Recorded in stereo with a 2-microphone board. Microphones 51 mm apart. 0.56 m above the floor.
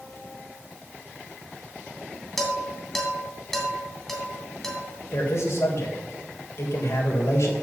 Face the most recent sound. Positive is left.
turn(degrees=65)  # may be behind; listen again after turning